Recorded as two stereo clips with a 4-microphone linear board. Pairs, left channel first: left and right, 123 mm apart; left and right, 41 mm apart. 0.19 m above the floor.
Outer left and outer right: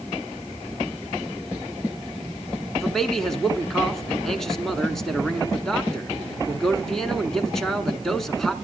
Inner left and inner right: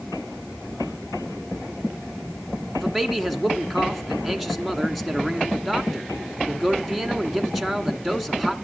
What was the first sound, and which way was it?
A man speaking, 5° left (ahead or behind).